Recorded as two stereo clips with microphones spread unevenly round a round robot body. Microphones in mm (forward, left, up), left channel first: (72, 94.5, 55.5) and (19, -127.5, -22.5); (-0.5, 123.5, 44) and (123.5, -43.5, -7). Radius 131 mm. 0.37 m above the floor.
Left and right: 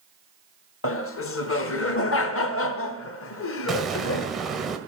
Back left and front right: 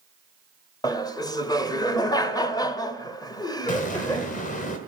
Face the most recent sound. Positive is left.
turn(degrees=-175)